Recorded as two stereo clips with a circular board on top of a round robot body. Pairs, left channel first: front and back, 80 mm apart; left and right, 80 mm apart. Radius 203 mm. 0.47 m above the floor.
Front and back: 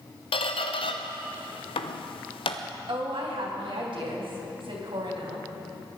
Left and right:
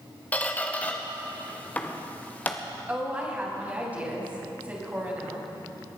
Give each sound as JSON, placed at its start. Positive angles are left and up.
{"t": 0.3, "sound": "a squeak", "azimuth_deg": 15, "distance_m": 0.6}
{"t": 2.9, "sound": "a woman speaking", "azimuth_deg": -165, "distance_m": 4.0}